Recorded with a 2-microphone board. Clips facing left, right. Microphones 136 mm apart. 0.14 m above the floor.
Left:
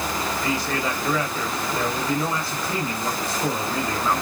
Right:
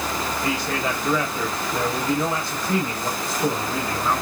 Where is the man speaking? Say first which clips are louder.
Right 1 dB; 20° right (ahead or behind), 5.5 m.